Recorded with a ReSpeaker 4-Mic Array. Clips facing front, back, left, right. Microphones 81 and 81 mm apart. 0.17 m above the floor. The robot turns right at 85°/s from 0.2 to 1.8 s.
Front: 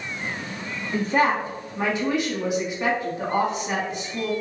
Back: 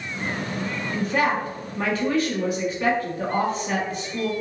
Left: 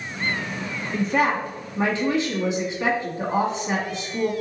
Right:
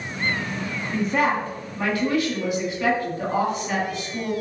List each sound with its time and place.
0.9 s a woman speaking: 20° right, 1.1 m; by 4.3 s 55° left, 1.1 m